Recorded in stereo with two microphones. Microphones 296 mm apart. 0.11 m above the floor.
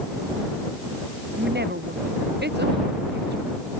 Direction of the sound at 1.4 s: 35° right (ahead or behind).